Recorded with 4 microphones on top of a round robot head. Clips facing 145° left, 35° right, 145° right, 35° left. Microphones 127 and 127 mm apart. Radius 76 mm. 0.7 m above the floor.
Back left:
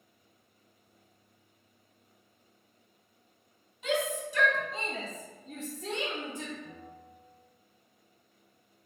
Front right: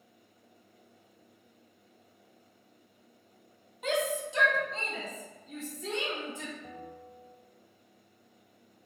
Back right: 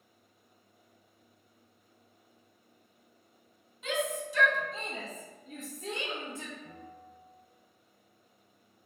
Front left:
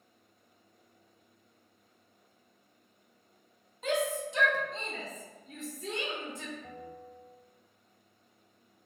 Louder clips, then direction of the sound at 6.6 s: Front right 3 dB, front left 3 dB; 10° right.